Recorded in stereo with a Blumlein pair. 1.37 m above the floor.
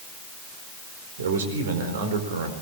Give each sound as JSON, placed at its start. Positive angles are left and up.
{"t": 1.2, "sound": "a man speaking", "azimuth_deg": -60, "distance_m": 4.0}